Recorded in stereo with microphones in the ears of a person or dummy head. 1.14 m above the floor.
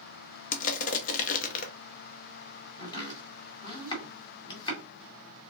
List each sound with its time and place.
0.5 s crushing: 40° left (ahead or behind), 0.7 m
2.8 s chopping: 20° left (ahead or behind), 1.9 m